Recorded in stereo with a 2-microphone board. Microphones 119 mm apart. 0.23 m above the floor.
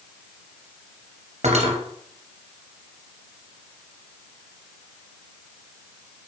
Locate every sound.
1.4 s cutlery clinking: 75° right (ahead or behind), 2.5 m